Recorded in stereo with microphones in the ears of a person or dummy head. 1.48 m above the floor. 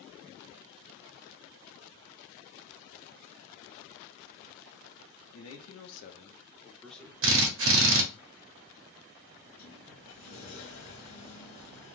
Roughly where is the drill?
Right.